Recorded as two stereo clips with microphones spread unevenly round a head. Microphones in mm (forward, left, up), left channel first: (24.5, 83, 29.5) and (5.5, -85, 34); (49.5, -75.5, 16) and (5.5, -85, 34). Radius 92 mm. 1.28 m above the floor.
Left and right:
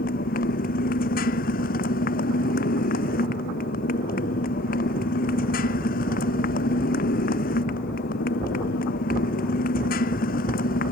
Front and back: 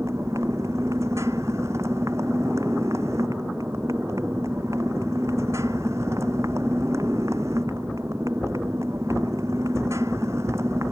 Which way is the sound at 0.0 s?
125° left.